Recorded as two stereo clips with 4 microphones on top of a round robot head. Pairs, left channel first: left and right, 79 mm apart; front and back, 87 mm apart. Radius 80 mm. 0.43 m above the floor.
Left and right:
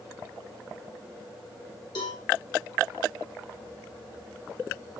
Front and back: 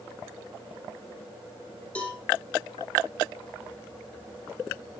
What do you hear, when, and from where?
1.9 s a cowbell: 75° left, 3.5 m